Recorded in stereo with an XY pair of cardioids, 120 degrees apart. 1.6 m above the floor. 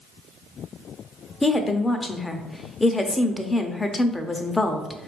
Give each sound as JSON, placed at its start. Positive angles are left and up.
{"t": 1.4, "sound": "a woman speaking", "azimuth_deg": 15, "distance_m": 0.6}